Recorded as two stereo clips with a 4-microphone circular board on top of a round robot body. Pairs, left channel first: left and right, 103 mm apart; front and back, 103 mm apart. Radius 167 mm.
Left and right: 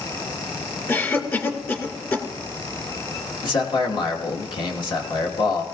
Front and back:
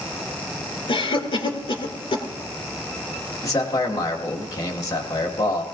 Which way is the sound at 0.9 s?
30° left.